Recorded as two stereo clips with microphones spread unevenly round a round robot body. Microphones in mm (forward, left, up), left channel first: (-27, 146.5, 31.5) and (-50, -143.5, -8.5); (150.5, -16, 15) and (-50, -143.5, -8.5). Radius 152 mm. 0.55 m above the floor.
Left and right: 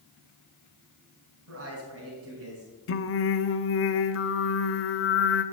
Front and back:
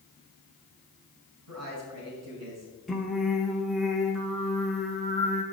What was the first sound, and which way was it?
A man speaking, 145° right.